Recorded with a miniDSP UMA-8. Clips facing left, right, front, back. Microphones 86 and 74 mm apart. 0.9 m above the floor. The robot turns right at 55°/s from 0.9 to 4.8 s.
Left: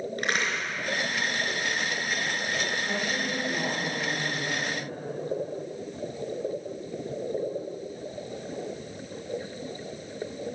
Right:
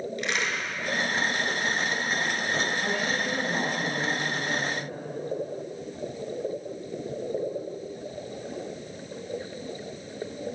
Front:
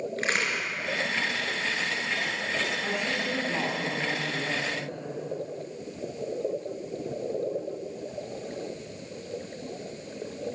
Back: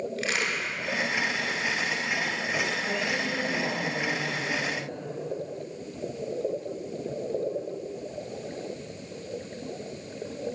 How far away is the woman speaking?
About 6 m.